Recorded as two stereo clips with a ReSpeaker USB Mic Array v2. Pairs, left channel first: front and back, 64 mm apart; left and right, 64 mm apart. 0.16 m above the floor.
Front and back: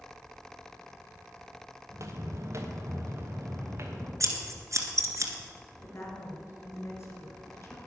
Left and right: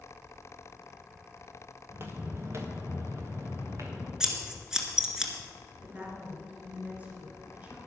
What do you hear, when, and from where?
1.9 s footsteps: 140° right, 2 m; by 4.1 s 130° right, 3.5 m
4.2 s scissors: 170° right, 1.9 m
5.8 s a woman speaking: 30° right, 2.5 m